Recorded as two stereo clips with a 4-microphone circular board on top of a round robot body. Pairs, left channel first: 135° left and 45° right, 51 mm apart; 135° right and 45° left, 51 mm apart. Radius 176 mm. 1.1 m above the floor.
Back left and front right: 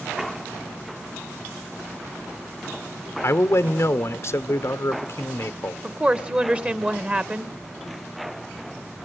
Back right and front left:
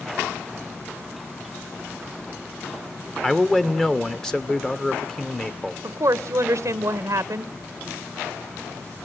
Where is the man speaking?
150° left, 1.0 m.